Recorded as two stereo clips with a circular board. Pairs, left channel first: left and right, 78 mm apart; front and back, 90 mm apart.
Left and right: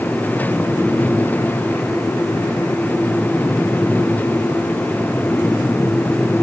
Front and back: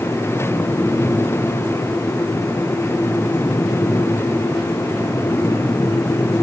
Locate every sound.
Only background noise.